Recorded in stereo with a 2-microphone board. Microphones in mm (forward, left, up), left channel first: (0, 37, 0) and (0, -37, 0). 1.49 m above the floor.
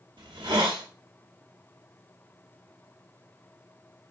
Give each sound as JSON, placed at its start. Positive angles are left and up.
{"t": 0.2, "sound": "a hiss", "side_deg": -75, "distance_m": 0.8}